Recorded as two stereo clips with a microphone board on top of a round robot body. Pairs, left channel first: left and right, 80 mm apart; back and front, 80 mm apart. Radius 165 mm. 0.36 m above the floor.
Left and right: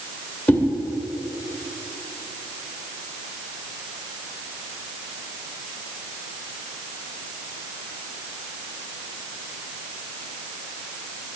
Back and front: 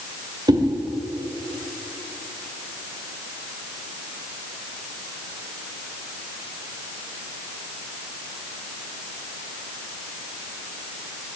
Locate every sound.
0.5 s a whoosh: 25° left, 1.7 m